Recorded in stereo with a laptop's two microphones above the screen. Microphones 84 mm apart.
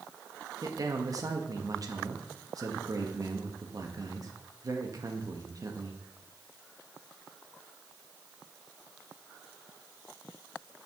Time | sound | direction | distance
0.6 | a man speaking | 45° right (ahead or behind) | 1.1 m